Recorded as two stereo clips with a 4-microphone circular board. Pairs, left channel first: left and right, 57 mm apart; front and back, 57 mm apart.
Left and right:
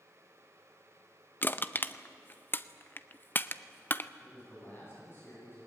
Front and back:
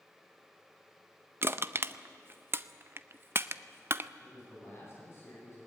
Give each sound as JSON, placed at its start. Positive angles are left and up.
{"t": 1.4, "sound": "crushing", "azimuth_deg": 140, "distance_m": 0.6}
{"t": 4.2, "sound": "a man speaking", "azimuth_deg": 45, "distance_m": 9.5}